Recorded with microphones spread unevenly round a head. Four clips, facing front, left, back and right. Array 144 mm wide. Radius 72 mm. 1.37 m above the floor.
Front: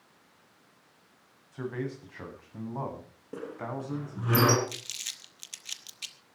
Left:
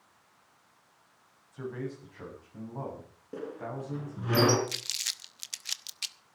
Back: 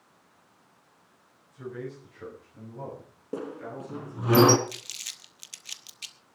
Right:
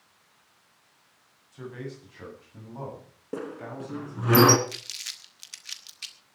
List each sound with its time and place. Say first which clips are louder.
1.5 s a man speaking: left 1 dB, front 3 dB; 5° left, 8 m; by 4.3 s straight ahead, 10.5 m
3.3 s a squeak: right 2 dB, back 1 dB; 125° right, 1.8 m
4.7 s crumpling: even, even; 105° left, 1.0 m